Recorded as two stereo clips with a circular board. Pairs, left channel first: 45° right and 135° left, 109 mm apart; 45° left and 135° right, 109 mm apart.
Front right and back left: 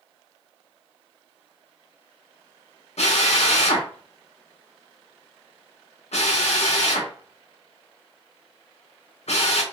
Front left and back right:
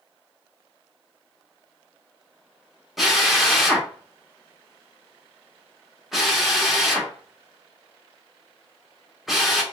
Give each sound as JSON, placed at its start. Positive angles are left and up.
{"t": 3.0, "sound": "a drill", "azimuth_deg": -45, "distance_m": 1.1}